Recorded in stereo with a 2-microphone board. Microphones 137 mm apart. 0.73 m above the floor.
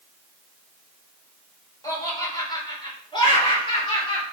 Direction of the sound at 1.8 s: 25° left (ahead or behind).